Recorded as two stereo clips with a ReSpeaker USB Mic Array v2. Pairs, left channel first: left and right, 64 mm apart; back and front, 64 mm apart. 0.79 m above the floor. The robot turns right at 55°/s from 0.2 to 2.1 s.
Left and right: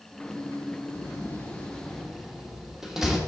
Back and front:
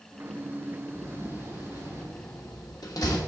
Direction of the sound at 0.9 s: 125° left.